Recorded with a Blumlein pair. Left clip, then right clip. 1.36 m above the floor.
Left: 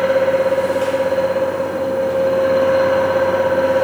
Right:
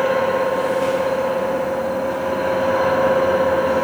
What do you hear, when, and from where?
0.0 s a fan: 45° left, 0.8 m